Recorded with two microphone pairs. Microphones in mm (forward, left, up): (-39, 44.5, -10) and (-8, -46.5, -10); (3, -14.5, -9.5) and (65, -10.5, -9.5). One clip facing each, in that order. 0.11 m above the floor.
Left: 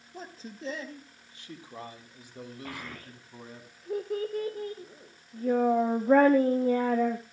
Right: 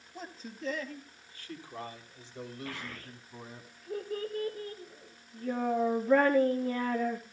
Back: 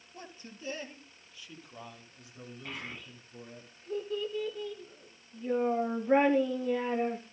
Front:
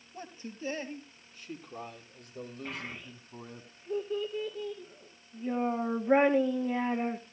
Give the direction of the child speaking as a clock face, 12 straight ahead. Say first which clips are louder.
Left 1 dB, front 2 dB; 9 o'clock.